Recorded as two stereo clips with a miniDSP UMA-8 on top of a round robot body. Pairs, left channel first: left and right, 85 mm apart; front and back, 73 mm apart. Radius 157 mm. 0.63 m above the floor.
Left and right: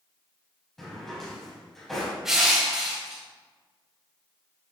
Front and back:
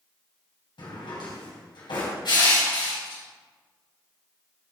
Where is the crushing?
5° right, 3.5 m.